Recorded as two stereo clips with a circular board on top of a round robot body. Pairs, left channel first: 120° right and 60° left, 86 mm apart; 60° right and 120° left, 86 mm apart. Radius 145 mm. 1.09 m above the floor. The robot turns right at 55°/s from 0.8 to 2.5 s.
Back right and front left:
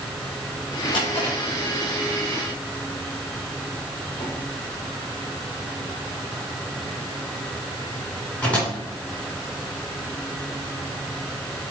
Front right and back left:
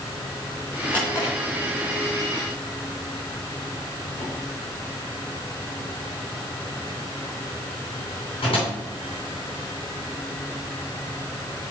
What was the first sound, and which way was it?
A drawer, 130° right.